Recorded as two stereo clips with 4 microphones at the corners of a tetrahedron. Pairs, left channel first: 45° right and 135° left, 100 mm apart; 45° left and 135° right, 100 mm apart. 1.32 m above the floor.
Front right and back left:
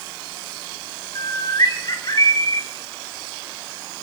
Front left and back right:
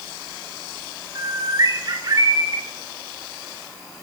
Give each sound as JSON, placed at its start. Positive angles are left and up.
{"t": 1.1, "sound": "a bird", "azimuth_deg": -90, "distance_m": 3.0}